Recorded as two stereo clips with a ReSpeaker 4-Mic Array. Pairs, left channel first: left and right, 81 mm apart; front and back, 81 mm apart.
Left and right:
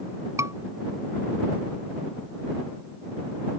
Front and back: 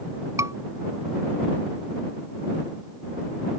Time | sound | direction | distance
0.4 | a scream | 135° right | ?